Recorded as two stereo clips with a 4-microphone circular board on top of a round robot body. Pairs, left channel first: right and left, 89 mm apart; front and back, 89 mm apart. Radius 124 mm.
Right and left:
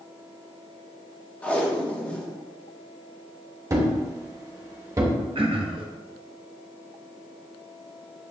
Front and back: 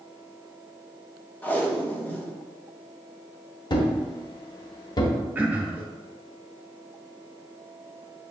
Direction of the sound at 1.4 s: 40° right.